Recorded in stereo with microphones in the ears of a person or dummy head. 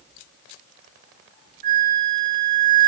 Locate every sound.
1.6 s a flute: 45° right (ahead or behind), 1.3 m